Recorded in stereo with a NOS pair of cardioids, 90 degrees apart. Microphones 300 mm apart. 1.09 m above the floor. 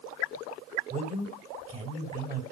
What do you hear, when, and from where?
0.9 s a man speaking: 25° right, 3.5 m